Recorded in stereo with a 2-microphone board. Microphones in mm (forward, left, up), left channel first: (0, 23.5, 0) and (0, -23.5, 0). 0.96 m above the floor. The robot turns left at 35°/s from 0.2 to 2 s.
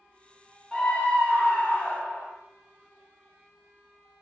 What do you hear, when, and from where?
0.7 s a scream: 165° left, 0.8 m; by 2.3 s 120° left, 0.8 m